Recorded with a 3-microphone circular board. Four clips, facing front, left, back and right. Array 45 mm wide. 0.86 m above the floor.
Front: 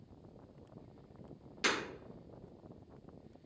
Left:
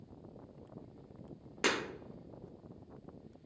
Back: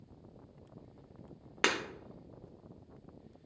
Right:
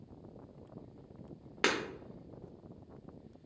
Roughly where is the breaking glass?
Behind.